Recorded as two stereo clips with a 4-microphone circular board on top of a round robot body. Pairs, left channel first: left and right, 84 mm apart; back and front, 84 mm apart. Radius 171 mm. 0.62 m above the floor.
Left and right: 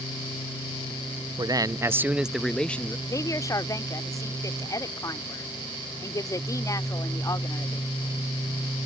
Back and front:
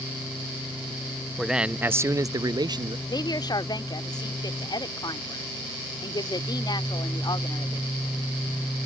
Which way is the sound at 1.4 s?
85° right.